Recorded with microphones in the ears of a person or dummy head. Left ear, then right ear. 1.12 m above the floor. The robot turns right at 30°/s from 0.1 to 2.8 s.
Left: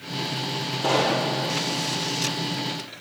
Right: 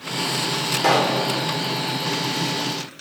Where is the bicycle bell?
I don't hear a bicycle bell.